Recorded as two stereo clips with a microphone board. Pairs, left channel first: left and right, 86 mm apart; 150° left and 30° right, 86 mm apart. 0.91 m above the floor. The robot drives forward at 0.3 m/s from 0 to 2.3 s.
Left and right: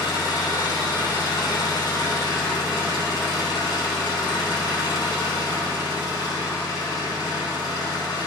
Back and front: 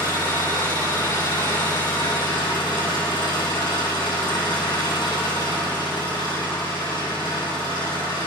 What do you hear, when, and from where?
0.0 s an engine running: 125° left, 5.5 m; by 8.3 s 130° left, 6 m